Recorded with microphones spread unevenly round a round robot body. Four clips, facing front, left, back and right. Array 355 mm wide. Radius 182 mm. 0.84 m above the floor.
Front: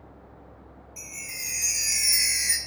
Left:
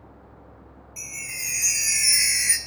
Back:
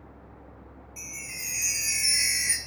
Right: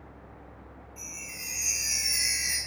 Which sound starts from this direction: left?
A chime, at 1.0 s.